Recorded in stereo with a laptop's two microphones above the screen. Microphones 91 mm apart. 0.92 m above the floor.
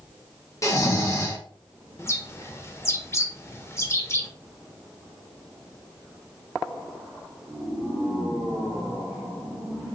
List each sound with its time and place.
0.6 s snoring: 35° left (ahead or behind), 1.1 m
2.0 s a bird: 30° left (ahead or behind), 0.7 m